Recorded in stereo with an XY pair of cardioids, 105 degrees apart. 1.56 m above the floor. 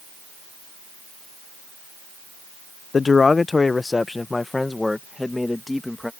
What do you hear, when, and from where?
2.9 s a man speaking: 35° left; by 6.1 s 10° left